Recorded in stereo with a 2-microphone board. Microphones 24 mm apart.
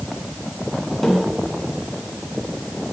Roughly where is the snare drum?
Centre.